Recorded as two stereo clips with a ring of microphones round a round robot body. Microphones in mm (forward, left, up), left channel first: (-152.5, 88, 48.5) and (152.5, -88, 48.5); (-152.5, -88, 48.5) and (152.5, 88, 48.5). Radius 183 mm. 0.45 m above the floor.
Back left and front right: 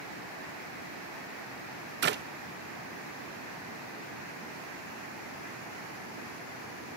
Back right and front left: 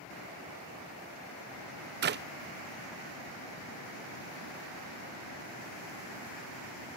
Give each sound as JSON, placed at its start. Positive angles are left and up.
{"t": 2.0, "sound": "a clap", "azimuth_deg": 0, "distance_m": 0.6}